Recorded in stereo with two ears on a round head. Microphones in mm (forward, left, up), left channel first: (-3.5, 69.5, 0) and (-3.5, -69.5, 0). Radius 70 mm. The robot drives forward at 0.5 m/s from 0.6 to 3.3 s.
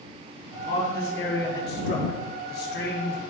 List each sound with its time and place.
0.5 s a man speaking: 65° left (ahead or behind), 2 m